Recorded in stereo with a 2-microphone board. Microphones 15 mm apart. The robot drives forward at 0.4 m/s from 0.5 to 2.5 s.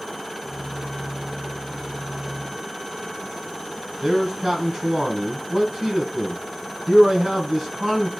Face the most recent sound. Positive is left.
turn(degrees=-30)  # may be behind; listen again after turning